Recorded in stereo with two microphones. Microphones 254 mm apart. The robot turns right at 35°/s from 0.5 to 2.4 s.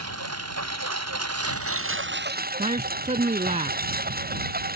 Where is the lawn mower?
105° right; by 4.8 s 35° right.